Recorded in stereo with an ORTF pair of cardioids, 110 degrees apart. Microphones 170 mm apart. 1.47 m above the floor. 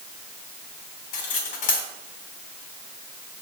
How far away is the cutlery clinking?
About 3.5 m.